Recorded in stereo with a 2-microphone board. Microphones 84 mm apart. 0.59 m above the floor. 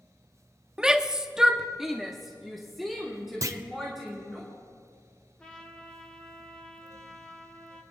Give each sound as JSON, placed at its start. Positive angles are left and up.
{"t": 0.8, "sound": "a shout", "side_deg": -10, "distance_m": 0.6}
{"t": 3.4, "sound": "a clunk", "side_deg": -40, "distance_m": 0.6}
{"t": 5.4, "sound": "a trumpet", "side_deg": 15, "distance_m": 1.2}